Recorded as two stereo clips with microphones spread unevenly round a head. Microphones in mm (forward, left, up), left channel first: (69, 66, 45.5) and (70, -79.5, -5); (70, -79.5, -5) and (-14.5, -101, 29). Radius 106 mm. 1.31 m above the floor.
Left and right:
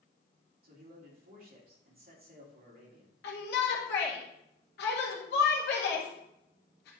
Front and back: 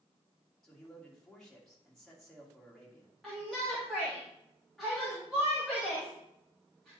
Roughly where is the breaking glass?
I don't hear breaking glass.